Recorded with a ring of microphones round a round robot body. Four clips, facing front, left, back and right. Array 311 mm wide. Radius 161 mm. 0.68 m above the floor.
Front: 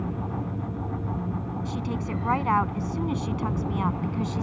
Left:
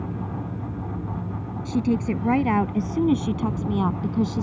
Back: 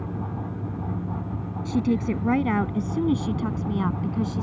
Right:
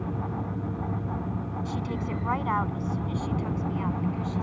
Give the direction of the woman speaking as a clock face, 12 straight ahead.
7 o'clock.